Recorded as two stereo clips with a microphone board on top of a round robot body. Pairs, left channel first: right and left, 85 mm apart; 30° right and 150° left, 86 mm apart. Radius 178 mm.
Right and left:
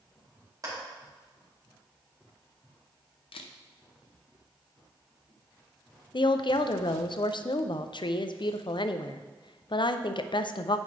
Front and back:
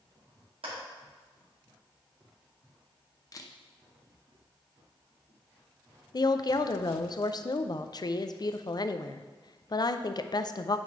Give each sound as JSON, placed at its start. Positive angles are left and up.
{"t": 0.6, "sound": "a clap", "azimuth_deg": 140, "distance_m": 2.5}
{"t": 3.3, "sound": "a camera shutter", "azimuth_deg": -80, "distance_m": 0.6}
{"t": 6.1, "sound": "a woman speaking", "azimuth_deg": -70, "distance_m": 0.6}